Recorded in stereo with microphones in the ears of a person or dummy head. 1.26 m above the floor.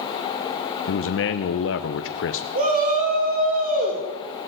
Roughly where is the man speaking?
Left.